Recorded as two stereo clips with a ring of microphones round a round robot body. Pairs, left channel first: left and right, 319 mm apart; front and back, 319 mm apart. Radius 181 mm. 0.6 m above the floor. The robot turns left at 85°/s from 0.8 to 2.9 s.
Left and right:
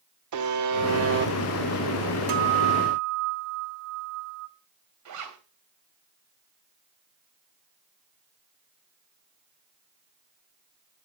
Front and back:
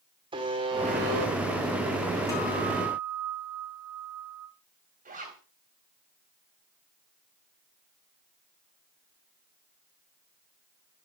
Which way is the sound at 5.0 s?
115° right.